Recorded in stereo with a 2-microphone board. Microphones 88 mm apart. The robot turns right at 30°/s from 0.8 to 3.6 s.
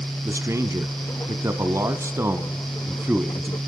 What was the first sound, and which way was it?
A man speaking, 110° right.